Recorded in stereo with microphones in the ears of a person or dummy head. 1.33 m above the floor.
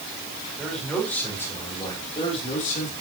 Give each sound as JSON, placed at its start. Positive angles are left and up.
{"t": 0.6, "sound": "a man speaking", "side_deg": 0, "distance_m": 4.5}